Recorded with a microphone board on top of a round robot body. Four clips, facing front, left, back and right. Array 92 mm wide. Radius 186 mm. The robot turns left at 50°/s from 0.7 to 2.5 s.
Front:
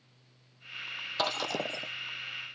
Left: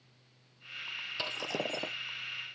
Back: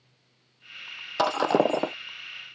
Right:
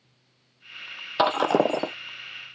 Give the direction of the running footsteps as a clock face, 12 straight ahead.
No running footsteps in this recording.